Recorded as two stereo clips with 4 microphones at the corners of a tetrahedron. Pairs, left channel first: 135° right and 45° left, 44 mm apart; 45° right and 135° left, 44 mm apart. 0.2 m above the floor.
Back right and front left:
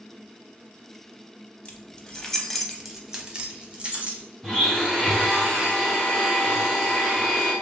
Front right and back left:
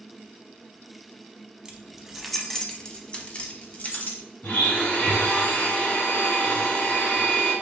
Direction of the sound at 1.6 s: 175° right.